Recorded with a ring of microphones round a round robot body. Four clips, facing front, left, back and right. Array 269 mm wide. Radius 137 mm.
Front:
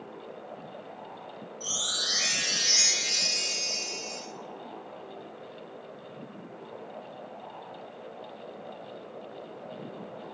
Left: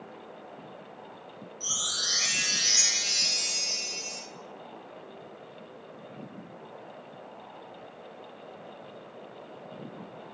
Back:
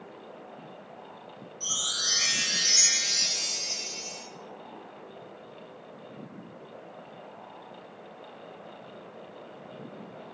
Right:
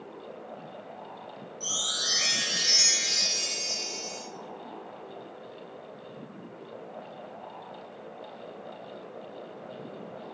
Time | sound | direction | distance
1.6 | a chime | 165° left | 1.1 m